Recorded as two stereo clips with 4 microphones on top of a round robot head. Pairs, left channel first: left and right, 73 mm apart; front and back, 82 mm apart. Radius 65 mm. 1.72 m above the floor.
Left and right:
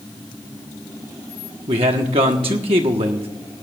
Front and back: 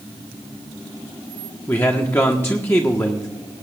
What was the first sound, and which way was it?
A man speaking, 70° right.